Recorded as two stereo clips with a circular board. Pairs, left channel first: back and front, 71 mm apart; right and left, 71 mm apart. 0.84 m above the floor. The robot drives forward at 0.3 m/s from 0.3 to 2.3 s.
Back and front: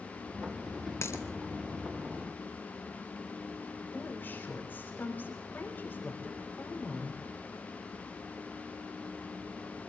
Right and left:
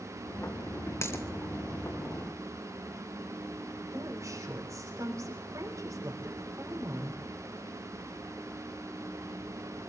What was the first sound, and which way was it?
A dropped coin, 135° right.